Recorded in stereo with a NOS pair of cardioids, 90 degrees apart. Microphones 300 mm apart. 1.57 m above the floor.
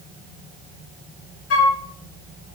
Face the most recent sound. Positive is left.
turn(degrees=55)